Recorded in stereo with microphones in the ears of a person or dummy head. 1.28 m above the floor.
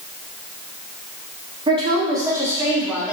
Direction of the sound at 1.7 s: 15° right (ahead or behind).